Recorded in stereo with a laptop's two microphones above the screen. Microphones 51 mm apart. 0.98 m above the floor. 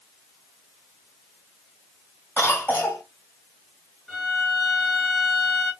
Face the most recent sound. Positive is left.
turn(degrees=0)  # may be behind; listen again after turning